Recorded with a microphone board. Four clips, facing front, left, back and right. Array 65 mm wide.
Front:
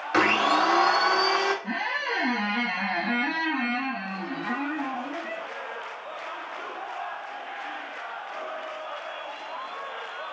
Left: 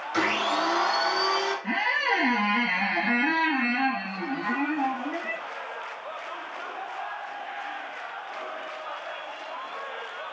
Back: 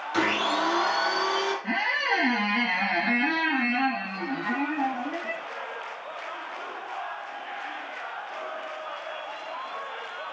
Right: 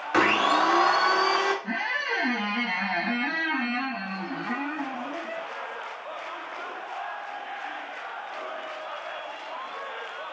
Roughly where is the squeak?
Behind left.